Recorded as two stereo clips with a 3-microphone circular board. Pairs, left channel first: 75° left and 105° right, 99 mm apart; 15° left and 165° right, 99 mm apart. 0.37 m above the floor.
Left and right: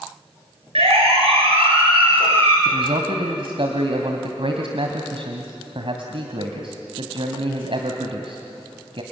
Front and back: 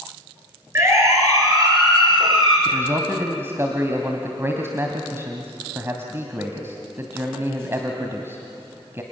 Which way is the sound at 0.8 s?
105° right.